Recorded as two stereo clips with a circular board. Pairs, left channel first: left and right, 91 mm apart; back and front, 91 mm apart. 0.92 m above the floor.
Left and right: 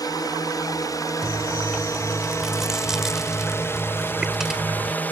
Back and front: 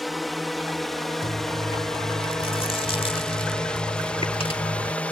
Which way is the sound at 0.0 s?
90° left.